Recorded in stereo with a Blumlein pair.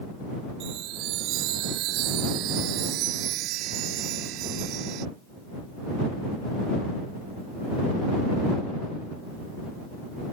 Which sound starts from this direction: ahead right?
A chime, at 0.6 s.